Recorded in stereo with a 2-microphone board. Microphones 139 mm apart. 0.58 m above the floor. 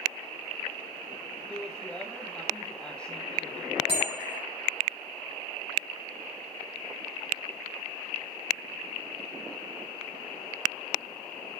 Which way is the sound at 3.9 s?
40° right (ahead or behind).